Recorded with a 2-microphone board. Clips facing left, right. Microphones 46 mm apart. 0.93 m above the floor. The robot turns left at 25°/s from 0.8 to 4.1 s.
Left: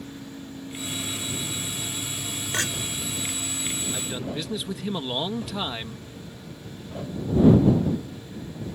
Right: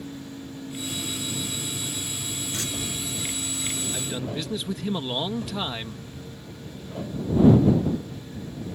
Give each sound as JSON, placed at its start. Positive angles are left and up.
{"t": 2.5, "sound": "a clink", "side_deg": 75}
{"t": 3.9, "sound": "a man speaking", "side_deg": 0}